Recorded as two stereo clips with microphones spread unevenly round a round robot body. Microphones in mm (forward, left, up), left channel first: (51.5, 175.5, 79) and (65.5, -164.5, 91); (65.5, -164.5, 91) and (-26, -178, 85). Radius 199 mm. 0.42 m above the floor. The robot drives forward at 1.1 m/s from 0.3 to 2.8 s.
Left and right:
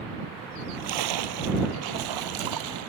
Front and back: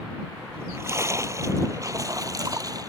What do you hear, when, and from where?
0.5 s a splash: 110° right; by 2.9 s 120° right